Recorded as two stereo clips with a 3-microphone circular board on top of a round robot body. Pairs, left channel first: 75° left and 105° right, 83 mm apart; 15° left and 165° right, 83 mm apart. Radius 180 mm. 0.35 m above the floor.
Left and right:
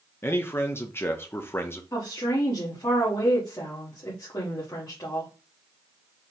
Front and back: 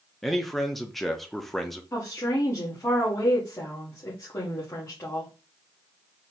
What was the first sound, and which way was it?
A man speaking, 100° left.